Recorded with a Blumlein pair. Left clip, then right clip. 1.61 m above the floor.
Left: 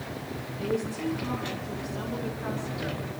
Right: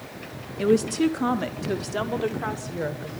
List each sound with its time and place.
0.6 s a woman speaking: 35° right, 1.1 m; by 3.1 s 60° right, 2 m